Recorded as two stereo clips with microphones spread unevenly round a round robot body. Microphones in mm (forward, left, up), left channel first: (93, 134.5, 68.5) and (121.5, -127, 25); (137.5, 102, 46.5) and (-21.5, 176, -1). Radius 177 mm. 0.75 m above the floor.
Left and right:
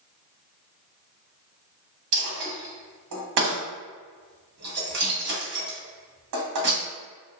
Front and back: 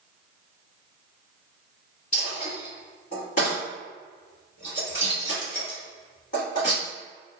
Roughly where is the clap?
No clap in this recording.